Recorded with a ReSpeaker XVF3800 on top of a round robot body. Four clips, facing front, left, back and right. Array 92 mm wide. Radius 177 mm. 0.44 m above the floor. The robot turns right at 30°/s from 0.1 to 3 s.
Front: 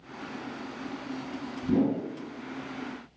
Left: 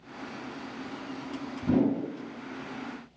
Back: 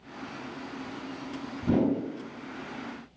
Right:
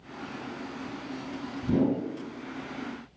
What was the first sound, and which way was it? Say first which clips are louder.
A whoosh: left 1 dB, even; 140° left.